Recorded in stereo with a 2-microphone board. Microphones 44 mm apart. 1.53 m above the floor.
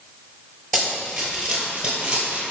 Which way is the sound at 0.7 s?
5° right (ahead or behind).